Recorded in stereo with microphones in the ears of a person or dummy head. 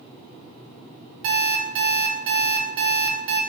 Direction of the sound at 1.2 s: 50° right (ahead or behind).